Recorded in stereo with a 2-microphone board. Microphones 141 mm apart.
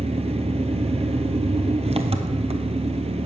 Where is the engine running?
45° right (ahead or behind), 0.9 m.